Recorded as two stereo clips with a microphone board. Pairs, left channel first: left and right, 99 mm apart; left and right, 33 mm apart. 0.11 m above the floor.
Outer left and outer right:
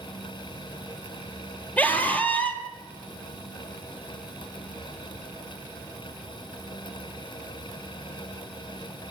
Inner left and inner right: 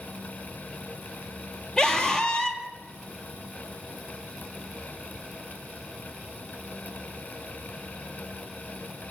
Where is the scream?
15° left (ahead or behind), 3.5 m.